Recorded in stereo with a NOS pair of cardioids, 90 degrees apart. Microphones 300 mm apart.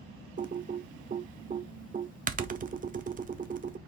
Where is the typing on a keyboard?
30° right, 0.5 m.